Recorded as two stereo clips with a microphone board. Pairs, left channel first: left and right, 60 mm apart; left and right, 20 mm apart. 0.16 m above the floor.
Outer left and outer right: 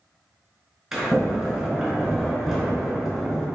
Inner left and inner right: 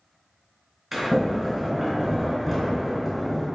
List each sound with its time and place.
0.9 s a sliding door: 5° right (ahead or behind), 0.9 m